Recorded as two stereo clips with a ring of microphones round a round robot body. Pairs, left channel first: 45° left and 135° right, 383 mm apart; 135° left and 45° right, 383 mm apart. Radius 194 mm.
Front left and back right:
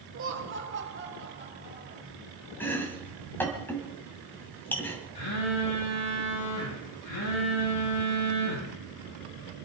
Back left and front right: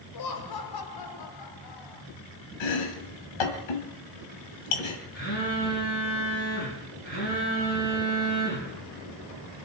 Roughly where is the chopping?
Behind left.